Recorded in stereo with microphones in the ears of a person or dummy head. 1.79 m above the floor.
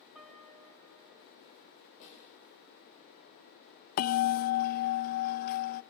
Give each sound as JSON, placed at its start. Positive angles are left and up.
{"t": 0.1, "sound": "a piano", "side_deg": 0, "distance_m": 6.5}
{"t": 2.0, "sound": "a snare drum", "side_deg": 40, "distance_m": 9.5}
{"t": 4.0, "sound": "a bell", "side_deg": 40, "distance_m": 0.6}